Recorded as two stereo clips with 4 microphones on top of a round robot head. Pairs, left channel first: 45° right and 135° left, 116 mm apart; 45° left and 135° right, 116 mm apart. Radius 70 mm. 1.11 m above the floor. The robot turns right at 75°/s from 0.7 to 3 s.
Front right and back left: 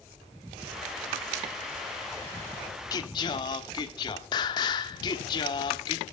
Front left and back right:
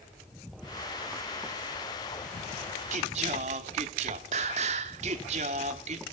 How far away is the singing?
About 1.2 m.